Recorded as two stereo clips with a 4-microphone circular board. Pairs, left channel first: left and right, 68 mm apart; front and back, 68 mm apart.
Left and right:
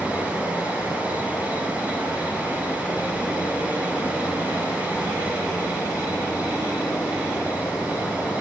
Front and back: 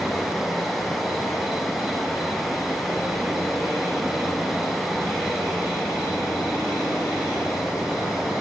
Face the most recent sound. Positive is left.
turn(degrees=100)